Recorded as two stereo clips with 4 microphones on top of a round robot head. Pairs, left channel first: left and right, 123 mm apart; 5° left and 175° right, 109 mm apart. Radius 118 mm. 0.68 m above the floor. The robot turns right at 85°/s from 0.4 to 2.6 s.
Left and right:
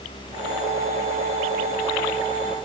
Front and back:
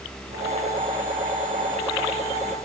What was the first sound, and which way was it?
Only background noise.